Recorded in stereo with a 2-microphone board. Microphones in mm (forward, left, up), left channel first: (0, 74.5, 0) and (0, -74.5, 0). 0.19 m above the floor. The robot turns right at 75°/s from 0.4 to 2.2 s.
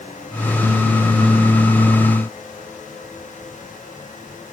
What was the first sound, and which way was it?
Only background noise.